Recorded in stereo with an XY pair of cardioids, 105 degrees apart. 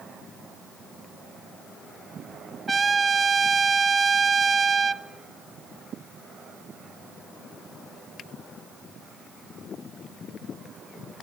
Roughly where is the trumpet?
Ahead right.